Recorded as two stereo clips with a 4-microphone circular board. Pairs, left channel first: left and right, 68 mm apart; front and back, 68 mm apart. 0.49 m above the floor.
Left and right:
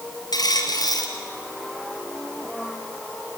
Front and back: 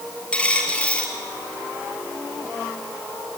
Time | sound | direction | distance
0.3 | a dropped coin | 70° left | 3.5 m